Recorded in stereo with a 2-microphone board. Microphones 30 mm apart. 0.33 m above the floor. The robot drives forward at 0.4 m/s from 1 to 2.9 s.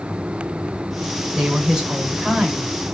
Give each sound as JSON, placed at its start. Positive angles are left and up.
{"t": 1.4, "sound": "a woman speaking", "side_deg": -25, "distance_m": 0.9}